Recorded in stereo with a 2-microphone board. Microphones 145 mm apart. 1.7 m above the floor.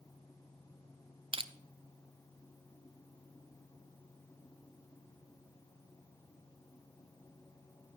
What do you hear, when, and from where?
1.3 s crushing: 40° right (ahead or behind), 0.6 m